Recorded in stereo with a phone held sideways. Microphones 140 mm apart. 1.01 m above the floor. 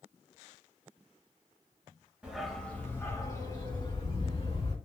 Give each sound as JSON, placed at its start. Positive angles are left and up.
{"t": 2.2, "sound": "a dog barking", "side_deg": -10, "distance_m": 1.0}